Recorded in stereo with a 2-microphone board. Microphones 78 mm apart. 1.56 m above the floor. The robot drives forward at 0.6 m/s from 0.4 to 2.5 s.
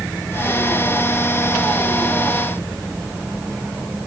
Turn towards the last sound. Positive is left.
No sound to turn to.